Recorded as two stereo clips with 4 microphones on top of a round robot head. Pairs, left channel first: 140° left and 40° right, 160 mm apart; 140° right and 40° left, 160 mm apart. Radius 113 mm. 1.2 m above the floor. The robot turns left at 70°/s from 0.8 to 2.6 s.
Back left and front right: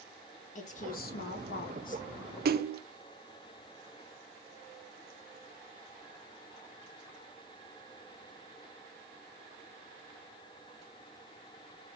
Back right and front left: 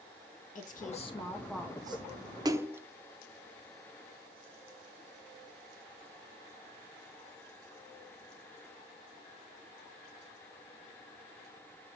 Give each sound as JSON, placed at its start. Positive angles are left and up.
{"t": 0.6, "sound": "a woman speaking", "azimuth_deg": 180, "distance_m": 1.9}
{"t": 2.5, "sound": "a splash", "azimuth_deg": -25, "distance_m": 0.7}